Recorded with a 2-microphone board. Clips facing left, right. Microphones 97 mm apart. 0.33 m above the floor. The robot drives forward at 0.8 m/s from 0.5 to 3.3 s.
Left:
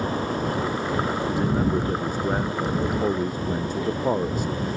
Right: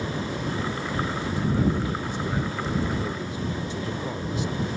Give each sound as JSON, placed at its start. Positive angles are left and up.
{"t": 1.3, "sound": "a man speaking", "side_deg": 45}